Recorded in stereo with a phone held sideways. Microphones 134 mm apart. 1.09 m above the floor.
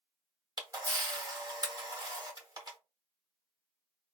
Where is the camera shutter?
30° right (ahead or behind), 0.8 m.